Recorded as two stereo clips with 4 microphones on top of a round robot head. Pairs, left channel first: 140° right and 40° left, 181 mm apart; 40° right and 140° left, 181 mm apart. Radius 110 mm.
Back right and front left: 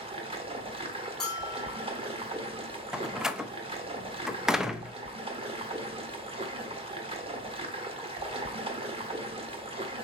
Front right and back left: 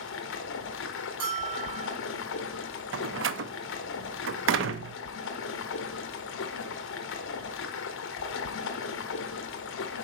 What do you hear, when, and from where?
0.0 s running water: 20° right, 1.2 m
1.2 s a bell: 135° left, 3.5 m
2.9 s a door slam: 130° left, 0.7 m